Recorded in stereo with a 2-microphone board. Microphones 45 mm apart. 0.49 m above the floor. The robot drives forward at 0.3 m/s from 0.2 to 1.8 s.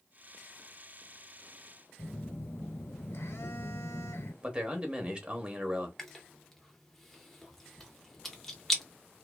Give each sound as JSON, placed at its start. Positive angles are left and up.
{"t": 2.0, "sound": "a phone buzzing", "side_deg": 80, "distance_m": 0.9}
{"t": 4.4, "sound": "a man speaking", "side_deg": -25, "distance_m": 0.7}
{"t": 6.0, "sound": "chewing", "side_deg": 5, "distance_m": 0.7}